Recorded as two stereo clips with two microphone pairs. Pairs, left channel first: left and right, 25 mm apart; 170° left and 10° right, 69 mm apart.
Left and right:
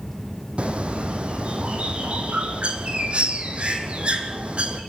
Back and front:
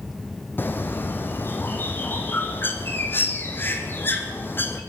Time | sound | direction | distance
0.6 | a bird | 130° right | 1.9 m